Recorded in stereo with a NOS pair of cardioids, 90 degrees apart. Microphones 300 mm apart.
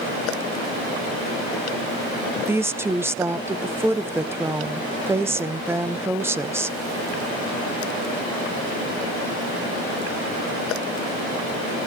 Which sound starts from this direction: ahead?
A woman speaking, at 2.5 s.